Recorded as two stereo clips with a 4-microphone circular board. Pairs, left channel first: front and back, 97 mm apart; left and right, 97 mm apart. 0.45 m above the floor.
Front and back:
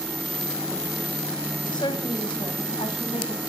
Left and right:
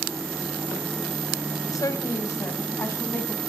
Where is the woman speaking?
40° left, 3 m; by 3.4 s 20° left, 5 m.